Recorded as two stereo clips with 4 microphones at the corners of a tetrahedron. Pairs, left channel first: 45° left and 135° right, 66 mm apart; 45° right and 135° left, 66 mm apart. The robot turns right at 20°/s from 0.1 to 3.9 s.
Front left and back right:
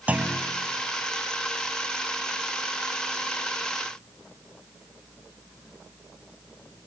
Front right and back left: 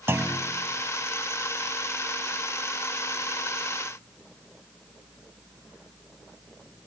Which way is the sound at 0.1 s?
165° left.